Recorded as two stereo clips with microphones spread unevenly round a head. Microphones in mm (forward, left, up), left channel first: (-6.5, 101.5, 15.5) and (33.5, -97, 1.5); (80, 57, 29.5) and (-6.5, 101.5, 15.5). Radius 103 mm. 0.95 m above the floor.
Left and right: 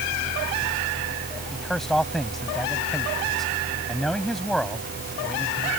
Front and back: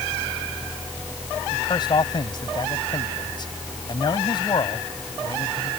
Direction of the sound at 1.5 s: 15° left.